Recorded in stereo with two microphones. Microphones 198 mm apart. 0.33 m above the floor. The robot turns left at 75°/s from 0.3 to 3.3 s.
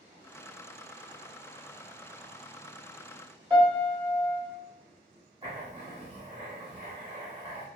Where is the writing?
30° right (ahead or behind), 0.9 m.